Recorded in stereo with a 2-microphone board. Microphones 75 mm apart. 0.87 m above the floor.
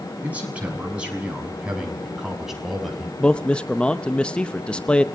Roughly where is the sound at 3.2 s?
Centre.